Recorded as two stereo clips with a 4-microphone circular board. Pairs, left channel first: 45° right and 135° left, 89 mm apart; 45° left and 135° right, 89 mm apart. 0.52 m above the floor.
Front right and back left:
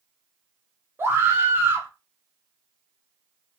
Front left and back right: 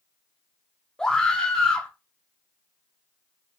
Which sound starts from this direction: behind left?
A scream, at 1.0 s.